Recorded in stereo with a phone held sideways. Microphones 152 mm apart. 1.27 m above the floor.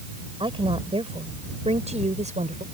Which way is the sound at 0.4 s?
35° right (ahead or behind).